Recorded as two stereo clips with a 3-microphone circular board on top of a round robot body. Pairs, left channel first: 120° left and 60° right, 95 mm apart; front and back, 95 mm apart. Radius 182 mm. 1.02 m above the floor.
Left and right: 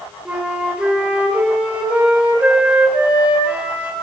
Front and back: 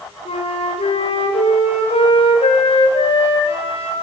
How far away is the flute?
About 3 m.